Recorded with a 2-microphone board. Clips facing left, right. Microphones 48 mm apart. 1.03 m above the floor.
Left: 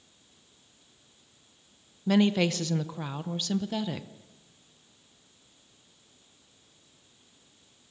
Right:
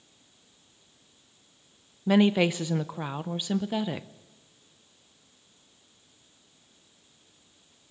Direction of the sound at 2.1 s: 20° right (ahead or behind).